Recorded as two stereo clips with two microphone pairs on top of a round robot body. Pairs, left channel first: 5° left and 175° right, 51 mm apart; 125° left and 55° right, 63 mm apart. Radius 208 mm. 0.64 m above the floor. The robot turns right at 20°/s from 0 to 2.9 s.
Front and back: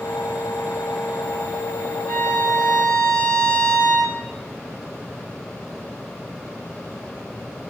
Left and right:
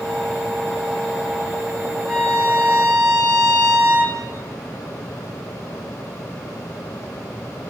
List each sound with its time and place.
2.1 s a violin: 130° right, 0.6 m; by 4.2 s 115° right, 0.6 m